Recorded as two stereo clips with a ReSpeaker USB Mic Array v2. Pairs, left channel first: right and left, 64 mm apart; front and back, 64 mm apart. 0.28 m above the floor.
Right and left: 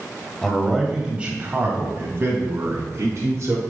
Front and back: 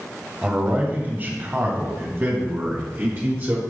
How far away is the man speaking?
About 1.1 m.